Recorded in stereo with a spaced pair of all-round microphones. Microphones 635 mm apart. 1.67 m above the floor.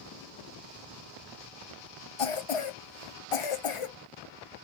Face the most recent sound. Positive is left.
turn(degrees=55)  # may be behind; listen again after turning